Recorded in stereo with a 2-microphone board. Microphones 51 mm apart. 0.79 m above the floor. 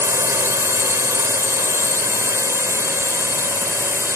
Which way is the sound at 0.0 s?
70° right (ahead or behind).